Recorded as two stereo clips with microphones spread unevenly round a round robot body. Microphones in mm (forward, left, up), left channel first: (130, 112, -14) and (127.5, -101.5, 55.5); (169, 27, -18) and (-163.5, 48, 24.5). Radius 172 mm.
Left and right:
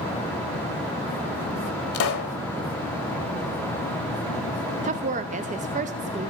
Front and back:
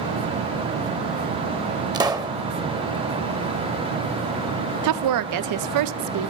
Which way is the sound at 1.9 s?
110° left.